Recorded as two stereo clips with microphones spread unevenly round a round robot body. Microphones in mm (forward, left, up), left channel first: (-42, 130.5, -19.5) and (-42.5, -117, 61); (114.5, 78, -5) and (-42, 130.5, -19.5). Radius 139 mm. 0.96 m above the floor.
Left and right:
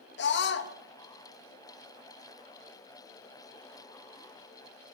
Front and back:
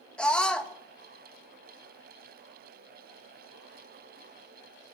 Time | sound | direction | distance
0.2 | a scream | 70° left | 1.1 m